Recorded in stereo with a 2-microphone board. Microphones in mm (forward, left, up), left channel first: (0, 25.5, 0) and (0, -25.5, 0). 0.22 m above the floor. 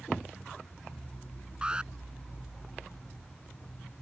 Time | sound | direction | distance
1.6 | an alarm | 20° right (ahead or behind) | ?